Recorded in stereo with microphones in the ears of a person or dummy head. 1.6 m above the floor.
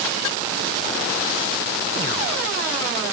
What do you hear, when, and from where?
Only background noise.